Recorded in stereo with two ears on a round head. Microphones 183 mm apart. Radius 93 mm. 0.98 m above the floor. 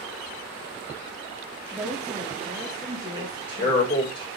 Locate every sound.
1.7 s a woman speaking: centre (ahead or behind), 2.0 m; by 3.9 s 30° right (ahead or behind), 1.3 m
3.1 s a man speaking: 25° left (ahead or behind), 4.5 m